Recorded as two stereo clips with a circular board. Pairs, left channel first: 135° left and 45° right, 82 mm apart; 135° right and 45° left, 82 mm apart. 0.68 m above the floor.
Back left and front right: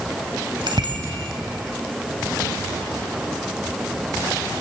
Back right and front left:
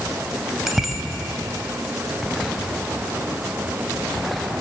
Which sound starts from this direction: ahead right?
A bicycle bell, at 0.7 s.